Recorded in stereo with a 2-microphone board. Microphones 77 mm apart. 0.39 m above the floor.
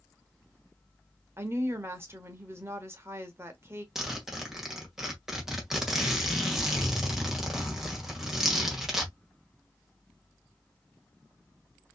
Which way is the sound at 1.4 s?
35° right (ahead or behind).